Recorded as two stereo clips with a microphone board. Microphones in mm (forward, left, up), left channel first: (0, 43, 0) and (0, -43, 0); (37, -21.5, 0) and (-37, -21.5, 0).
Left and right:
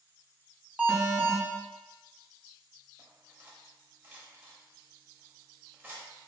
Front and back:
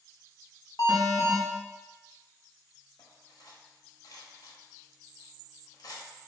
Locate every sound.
0.8 s an alarm: 15° right, 0.9 m
3.0 s cutlery clinking: 25° right, 0.8 m